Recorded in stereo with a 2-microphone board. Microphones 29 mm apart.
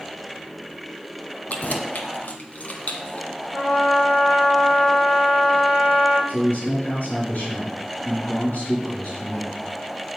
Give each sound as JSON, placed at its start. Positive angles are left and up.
{"t": 1.5, "sound": "keys jangling", "side_deg": 55, "distance_m": 1.3}
{"t": 3.5, "sound": "a trumpet", "side_deg": 75, "distance_m": 5.5}
{"t": 6.3, "sound": "a man speaking", "side_deg": 75, "distance_m": 5.0}